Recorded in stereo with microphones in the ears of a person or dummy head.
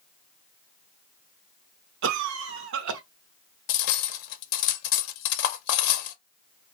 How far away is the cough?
About 0.6 m.